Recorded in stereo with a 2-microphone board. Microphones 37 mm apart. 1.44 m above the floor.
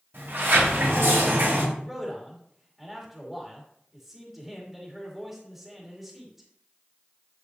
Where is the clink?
No clink in this recording.